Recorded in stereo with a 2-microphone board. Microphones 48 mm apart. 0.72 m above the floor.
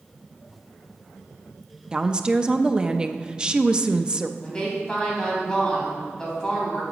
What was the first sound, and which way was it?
A woman speaking, 20° right (ahead or behind).